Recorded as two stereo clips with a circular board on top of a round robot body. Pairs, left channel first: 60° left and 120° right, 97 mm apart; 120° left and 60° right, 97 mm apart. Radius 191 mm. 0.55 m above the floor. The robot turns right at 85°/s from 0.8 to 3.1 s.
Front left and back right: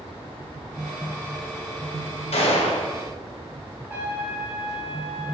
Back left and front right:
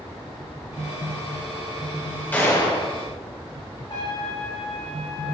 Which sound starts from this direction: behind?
A trumpet, at 3.9 s.